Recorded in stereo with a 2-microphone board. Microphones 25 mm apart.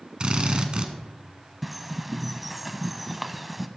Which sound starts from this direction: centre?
A bird, at 1.6 s.